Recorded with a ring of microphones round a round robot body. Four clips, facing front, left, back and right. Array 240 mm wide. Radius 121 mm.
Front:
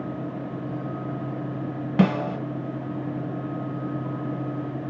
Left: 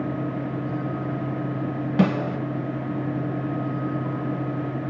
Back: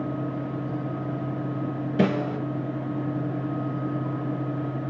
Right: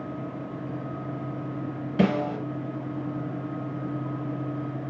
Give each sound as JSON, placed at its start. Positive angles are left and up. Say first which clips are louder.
{"t": 2.0, "sound": "a snare drum", "louder": "left 1 dB, front 2 dB", "azimuth_deg": 30, "distance_m": 1.7}